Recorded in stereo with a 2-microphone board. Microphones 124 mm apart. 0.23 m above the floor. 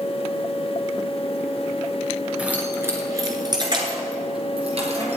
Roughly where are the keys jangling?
Centre.